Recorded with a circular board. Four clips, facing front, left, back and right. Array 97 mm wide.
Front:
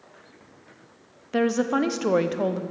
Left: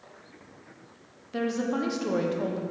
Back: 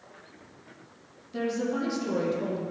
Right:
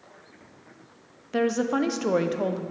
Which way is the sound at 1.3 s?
25° right.